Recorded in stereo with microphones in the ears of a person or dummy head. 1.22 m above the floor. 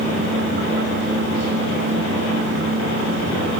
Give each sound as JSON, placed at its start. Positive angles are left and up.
{"t": 0.0, "sound": "a fan", "side_deg": -70, "distance_m": 1.2}